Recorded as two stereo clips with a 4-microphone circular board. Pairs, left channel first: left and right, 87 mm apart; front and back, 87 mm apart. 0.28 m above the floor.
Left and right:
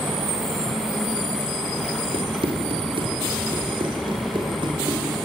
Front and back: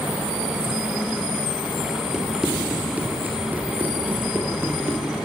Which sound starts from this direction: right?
Running footsteps, at 2.1 s.